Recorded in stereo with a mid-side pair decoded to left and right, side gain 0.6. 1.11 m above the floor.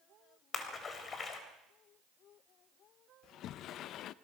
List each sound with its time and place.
0.5 s a splash: 35° left, 3.5 m
3.2 s a sliding door: 60° left, 0.6 m